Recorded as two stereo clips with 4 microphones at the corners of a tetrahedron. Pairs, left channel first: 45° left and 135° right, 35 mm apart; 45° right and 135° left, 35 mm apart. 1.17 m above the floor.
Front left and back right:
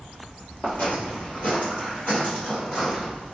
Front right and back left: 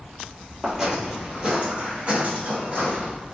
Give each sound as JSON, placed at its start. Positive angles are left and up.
{"t": 0.6, "sound": "footsteps", "azimuth_deg": 55, "distance_m": 1.8}